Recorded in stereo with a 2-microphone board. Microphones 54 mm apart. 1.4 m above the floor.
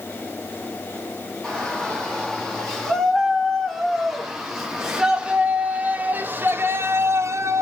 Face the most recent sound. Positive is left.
turn(degrees=-70)  # may be behind; listen again after turning